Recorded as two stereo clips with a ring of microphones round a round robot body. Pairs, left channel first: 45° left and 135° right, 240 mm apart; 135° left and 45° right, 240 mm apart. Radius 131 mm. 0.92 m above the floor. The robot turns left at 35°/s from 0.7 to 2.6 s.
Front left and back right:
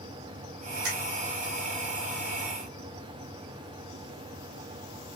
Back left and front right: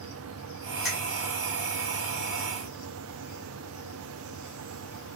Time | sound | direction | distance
0.8 | a finger snap | 135° right | 1.7 m